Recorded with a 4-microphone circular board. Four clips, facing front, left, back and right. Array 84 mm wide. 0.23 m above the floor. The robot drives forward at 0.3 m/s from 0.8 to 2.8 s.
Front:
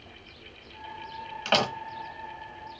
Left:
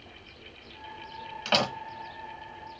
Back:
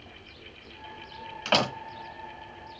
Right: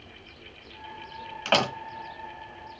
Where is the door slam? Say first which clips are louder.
Right 3 dB, even; 85° right, 1.0 m; by 1.7 s 100° right, 1.0 m.